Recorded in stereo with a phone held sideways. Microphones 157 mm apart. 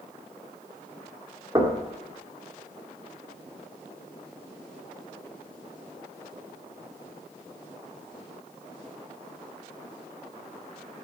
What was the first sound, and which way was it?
Knocking, 25° right (ahead or behind).